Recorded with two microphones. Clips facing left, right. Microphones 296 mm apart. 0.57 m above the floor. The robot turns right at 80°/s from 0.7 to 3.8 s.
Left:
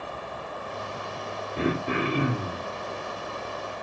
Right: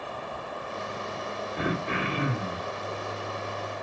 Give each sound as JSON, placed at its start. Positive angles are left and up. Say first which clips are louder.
{"t": 1.6, "sound": "throat clearing", "louder": "left 5 dB", "azimuth_deg": 40, "distance_m": 1.5}